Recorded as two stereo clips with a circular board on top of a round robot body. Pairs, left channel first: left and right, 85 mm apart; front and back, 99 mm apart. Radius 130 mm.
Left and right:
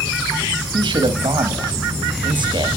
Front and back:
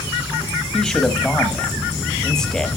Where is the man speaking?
85° right, 1.6 m.